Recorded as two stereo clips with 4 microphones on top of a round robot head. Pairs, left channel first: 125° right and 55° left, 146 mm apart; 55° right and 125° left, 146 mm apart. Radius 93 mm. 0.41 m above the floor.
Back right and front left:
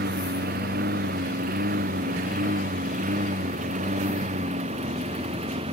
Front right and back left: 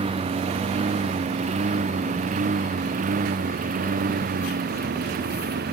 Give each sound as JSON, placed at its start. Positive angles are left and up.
{"t": 0.0, "sound": "a lawn mower", "azimuth_deg": 75}